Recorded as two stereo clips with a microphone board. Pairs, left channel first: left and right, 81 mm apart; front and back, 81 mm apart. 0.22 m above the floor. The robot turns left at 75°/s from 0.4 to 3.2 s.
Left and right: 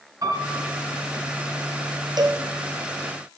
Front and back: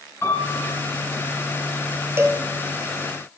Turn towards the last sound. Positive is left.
turn(degrees=160)